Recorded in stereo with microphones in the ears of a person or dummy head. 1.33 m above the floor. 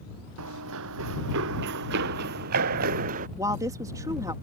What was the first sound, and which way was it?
Running footsteps, 75° right (ahead or behind).